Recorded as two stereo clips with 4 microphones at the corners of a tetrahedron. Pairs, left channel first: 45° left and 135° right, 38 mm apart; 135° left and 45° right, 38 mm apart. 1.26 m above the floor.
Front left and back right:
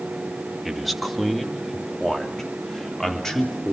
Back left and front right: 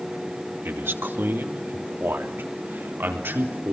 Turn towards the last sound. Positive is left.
turn(degrees=-30)